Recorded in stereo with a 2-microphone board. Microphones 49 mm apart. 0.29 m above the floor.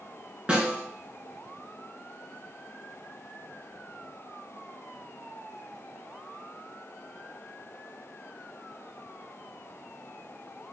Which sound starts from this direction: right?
A snare drum, at 0.5 s.